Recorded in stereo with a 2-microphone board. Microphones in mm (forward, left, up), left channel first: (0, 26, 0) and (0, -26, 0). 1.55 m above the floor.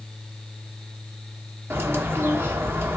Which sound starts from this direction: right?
A bird, at 1.7 s.